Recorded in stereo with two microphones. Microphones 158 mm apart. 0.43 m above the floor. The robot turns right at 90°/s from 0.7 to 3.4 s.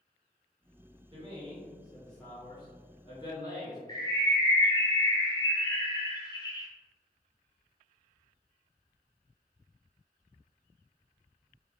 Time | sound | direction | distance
1.1 | a man speaking | 80° right | 1.2 m
3.9 | a bird | 30° left (ahead or behind) | 1.0 m